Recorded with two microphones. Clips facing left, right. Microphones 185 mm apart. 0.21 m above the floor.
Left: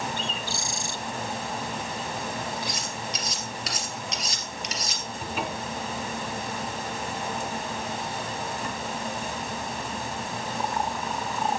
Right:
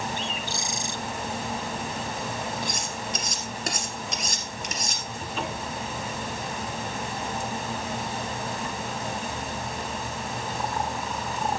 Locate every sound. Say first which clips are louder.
0.2 s a bird: even; 20° right (ahead or behind), 0.7 m
2.6 s cutlery clinking: right 1 dB; 50° right (ahead or behind), 2.5 m
5.2 s a cupboard door: left 1 dB; 10° left (ahead or behind), 2 m